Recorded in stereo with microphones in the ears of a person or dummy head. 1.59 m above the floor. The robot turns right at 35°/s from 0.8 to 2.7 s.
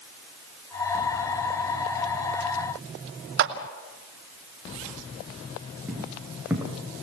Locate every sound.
3.4 s a clap: 65° right (ahead or behind), 2 m
5.9 s footsteps: 10° right (ahead or behind), 4.5 m